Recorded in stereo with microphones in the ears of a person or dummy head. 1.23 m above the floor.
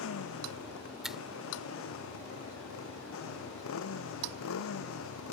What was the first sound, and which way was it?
A motorcycle, 85° left.